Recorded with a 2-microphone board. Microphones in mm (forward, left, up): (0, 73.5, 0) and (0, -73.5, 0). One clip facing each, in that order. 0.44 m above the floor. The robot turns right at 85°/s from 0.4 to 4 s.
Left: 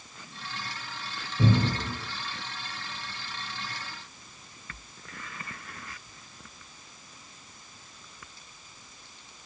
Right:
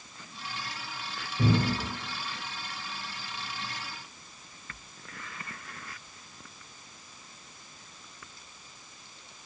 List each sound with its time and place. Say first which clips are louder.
1.4 s a cupboard door: left 1 dB; centre (ahead or behind), 0.9 m; by 1.9 s 40° left (ahead or behind), 0.9 m